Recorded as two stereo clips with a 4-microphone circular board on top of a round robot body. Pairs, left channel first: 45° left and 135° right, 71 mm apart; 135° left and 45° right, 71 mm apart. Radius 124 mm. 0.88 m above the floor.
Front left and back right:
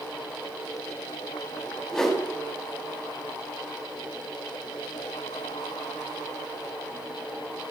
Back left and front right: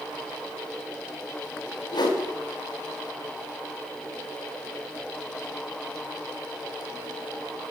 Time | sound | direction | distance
1.9 | a whoosh | 130° left | 2 m